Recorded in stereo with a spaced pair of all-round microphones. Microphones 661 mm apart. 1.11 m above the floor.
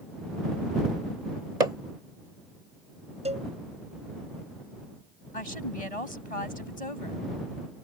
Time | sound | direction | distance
1.6 | hammering | 85° right | ?
3.2 | a cowbell | 10° right (ahead or behind) | ?
5.3 | a woman speaking | 55° left (ahead or behind) | ?